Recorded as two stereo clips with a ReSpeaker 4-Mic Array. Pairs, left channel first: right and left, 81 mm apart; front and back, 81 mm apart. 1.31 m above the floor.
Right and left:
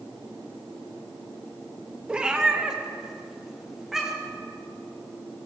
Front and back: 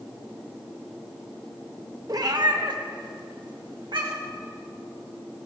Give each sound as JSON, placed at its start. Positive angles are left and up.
{"t": 2.1, "sound": "a cat meowing", "azimuth_deg": 165, "distance_m": 0.7}